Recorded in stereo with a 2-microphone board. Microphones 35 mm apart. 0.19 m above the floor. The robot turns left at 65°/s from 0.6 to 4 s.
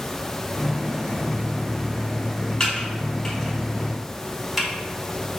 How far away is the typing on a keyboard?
About 1.3 m.